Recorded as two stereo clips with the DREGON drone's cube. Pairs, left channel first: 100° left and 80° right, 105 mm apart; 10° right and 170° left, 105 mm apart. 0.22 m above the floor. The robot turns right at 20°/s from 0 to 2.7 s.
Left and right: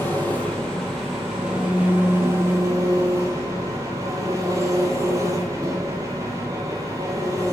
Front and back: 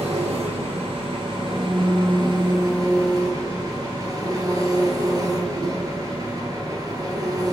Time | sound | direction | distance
0.0 | an engine running | 170° left | 1.5 m